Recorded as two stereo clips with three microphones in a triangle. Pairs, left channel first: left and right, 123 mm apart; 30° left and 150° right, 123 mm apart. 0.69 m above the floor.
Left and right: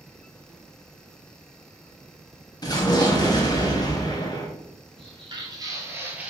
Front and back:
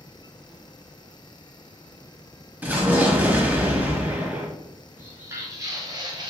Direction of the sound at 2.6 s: 140° left.